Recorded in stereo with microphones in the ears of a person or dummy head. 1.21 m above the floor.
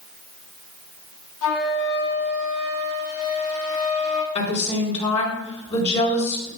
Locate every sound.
1.4 s a flute: 85° left, 1.6 m
4.3 s a woman speaking: 35° left (ahead or behind), 4 m